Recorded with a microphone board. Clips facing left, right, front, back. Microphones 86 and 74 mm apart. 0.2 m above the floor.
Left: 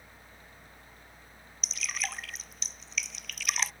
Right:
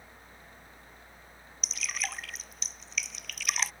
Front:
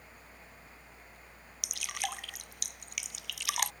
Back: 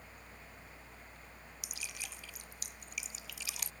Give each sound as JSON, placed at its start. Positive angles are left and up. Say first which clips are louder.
{"t": 1.6, "sound": "dripping", "louder": "even, front 11 dB", "azimuth_deg": 0}